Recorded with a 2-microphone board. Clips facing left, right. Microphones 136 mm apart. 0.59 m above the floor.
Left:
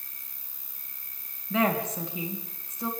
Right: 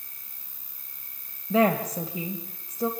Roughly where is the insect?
Right.